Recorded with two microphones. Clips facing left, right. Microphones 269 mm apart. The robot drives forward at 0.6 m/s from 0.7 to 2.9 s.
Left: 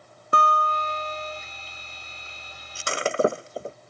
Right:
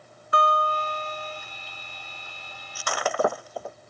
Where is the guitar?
50° left (ahead or behind); by 1.4 s 35° left (ahead or behind).